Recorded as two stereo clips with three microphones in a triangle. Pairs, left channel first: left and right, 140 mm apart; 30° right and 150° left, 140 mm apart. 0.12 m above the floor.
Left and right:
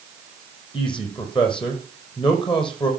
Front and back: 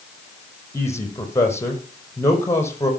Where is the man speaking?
40° left, 4.5 m.